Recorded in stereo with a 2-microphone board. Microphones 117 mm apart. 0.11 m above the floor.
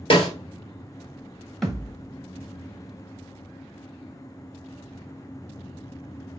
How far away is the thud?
About 0.9 m.